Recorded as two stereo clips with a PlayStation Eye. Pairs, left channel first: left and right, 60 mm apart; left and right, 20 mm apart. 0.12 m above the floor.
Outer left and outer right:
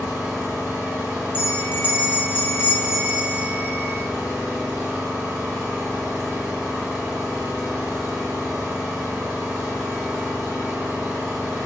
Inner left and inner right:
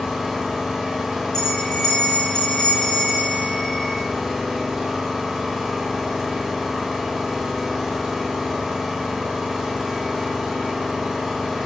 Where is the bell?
35° left (ahead or behind), 0.9 m.